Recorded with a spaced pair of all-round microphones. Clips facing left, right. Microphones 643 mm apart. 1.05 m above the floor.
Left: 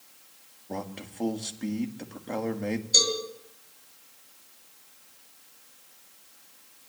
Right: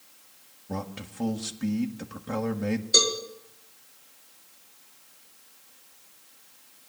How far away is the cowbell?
About 4 m.